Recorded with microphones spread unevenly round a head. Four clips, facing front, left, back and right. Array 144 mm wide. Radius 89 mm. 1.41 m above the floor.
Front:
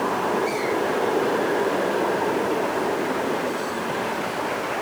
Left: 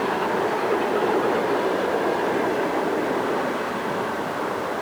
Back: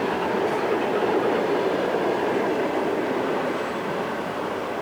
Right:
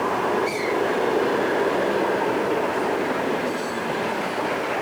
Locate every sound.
Only background noise.